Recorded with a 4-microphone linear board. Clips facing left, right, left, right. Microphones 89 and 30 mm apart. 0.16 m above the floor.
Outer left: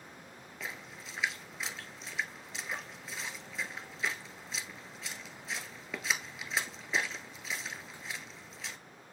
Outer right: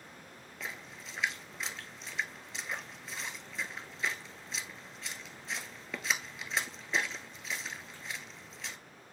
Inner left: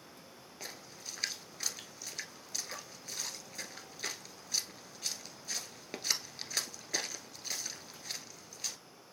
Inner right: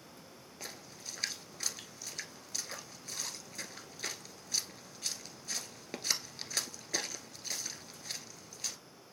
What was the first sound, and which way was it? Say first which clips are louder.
A splash: even, even; centre (ahead or behind).